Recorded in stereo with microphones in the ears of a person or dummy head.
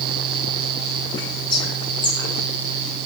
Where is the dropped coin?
No dropped coin in this recording.